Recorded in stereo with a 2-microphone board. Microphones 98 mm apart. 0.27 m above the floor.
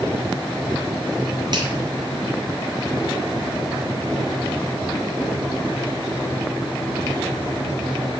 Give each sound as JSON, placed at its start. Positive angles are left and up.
{"t": 1.5, "sound": "a finger snap", "side_deg": -45, "distance_m": 4.0}